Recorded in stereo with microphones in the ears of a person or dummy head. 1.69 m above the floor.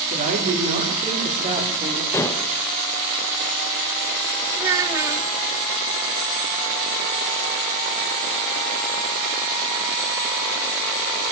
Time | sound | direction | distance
0.1 | a woman speaking | 40° right (ahead or behind) | 5.5 m
2.1 | dishes clattering | 15° left (ahead or behind) | 1.0 m
4.6 | a child speaking | 10° right (ahead or behind) | 0.9 m